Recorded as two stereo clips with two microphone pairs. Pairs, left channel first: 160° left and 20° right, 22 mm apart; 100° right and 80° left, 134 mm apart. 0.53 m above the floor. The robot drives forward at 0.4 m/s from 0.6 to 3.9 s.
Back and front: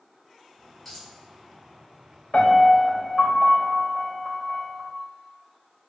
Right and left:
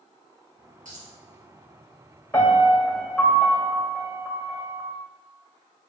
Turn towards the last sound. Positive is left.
turn(degrees=-175)